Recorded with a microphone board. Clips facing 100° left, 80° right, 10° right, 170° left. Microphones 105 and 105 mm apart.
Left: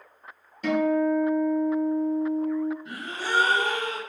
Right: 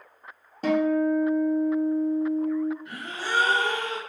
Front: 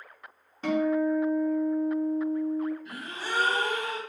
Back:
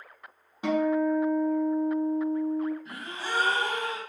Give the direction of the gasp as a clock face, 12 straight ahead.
7 o'clock.